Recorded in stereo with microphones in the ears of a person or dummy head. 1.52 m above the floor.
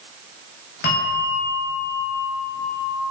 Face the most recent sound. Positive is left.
turn(degrees=55)  # may be behind; listen again after turning